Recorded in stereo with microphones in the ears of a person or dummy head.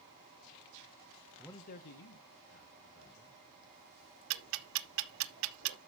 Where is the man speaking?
5° left (ahead or behind), 0.6 m; by 3.4 s 65° left (ahead or behind), 2.5 m.